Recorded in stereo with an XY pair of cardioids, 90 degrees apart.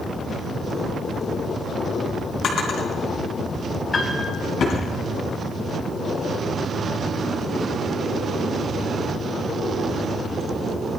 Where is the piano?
30° left, 5 m.